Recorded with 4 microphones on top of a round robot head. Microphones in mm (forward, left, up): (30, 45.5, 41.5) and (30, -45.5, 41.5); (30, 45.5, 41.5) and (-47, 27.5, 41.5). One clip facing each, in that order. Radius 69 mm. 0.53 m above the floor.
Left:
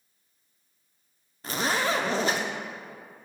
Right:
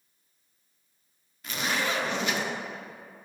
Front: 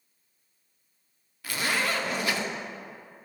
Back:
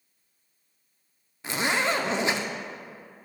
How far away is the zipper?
About 0.6 m.